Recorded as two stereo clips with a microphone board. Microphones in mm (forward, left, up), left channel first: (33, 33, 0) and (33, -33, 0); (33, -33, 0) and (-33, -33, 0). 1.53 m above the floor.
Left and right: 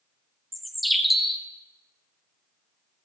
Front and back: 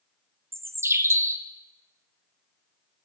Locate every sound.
0.5 s a bird: straight behind, 0.6 m